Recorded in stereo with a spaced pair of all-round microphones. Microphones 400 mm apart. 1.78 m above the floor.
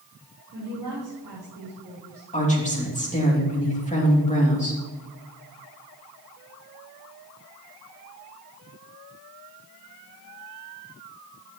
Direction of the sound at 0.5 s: 60° right (ahead or behind).